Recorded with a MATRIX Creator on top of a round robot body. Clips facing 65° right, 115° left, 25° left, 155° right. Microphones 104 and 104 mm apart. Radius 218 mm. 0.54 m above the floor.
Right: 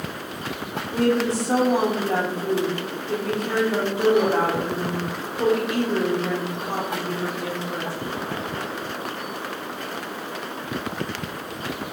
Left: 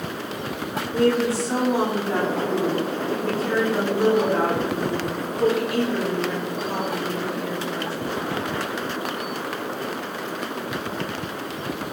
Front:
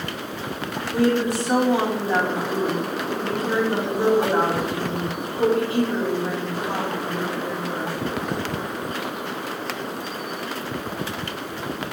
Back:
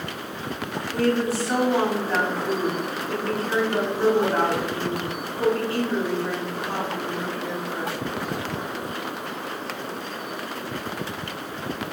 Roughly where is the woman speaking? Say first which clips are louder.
Left 1 dB, front 2 dB; ahead right.